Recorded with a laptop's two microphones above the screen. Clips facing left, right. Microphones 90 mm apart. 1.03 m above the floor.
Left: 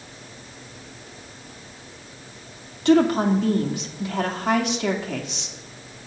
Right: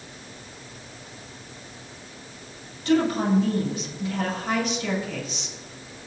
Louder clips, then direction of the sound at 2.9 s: Left 4 dB; 75° left (ahead or behind).